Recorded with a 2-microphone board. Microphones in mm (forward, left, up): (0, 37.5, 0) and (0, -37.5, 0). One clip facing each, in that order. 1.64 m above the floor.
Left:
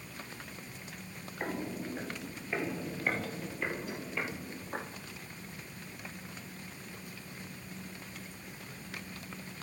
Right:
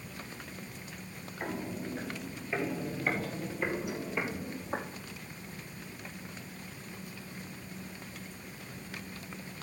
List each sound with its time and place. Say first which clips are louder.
1.4 s footsteps: even; 20° left (ahead or behind), 2.5 m; by 5.0 s 25° right (ahead or behind), 3 m